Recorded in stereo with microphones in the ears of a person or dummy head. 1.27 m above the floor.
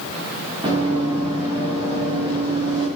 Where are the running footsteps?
30° right (ahead or behind), 7 m.